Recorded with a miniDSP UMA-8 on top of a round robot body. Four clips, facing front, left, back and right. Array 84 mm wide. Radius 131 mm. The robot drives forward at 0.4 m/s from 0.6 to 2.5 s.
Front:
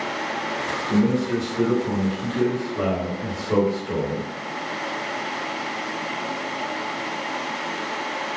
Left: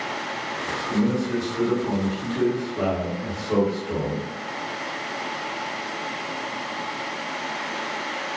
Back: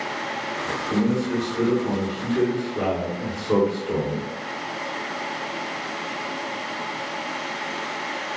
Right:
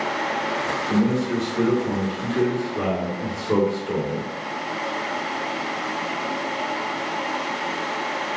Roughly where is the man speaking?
Right.